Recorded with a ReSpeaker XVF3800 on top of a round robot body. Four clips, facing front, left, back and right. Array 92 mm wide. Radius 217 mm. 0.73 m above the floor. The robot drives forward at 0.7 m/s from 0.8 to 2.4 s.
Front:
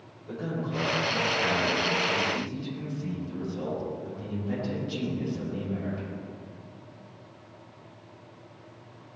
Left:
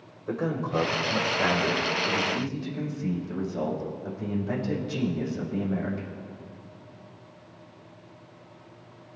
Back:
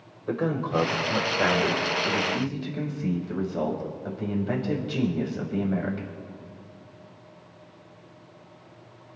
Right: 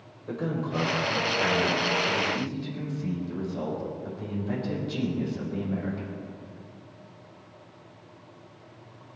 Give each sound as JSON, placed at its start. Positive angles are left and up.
{"t": 0.3, "sound": "a man speaking", "azimuth_deg": 160, "distance_m": 3.5}